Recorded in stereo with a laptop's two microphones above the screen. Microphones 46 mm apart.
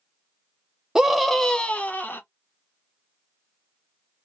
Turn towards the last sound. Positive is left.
turn(degrees=45)  # may be behind; listen again after turning